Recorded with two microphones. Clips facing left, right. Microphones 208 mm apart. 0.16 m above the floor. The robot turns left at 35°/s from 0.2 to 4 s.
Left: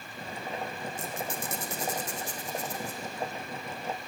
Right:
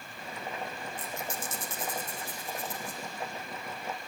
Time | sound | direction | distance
1.0 | a squeak | 45° left (ahead or behind) | 4.5 m